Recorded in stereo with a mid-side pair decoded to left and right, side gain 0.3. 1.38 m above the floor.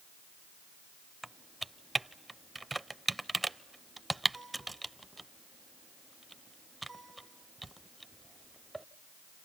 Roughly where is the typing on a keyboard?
Ahead right.